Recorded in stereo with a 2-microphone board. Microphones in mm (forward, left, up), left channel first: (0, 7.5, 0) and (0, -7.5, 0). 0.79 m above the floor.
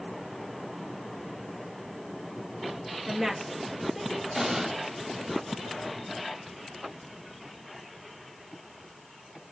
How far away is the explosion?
About 1.2 m.